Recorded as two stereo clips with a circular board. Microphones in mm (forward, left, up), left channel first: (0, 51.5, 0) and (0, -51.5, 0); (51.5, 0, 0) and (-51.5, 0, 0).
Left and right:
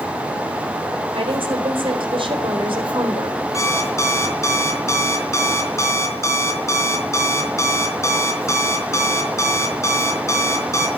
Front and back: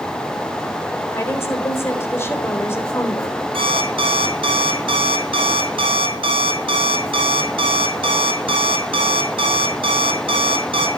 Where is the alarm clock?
150° left, 3.5 m.